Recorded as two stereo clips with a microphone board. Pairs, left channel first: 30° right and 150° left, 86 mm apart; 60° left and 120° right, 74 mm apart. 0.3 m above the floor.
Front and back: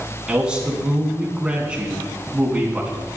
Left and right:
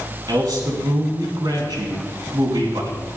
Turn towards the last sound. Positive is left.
turn(degrees=-135)